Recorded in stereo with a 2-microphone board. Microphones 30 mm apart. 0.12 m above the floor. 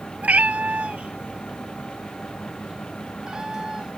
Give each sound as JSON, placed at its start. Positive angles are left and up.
{"t": 0.2, "sound": "a cat meowing", "side_deg": -50}